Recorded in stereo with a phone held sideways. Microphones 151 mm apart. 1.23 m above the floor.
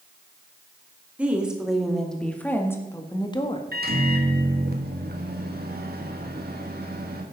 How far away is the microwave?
About 1.8 m.